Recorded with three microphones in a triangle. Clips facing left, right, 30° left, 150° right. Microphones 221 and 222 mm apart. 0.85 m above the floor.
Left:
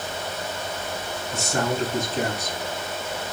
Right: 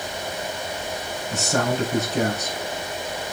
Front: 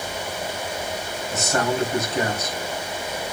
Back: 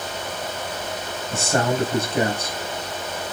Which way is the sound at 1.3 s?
90° right.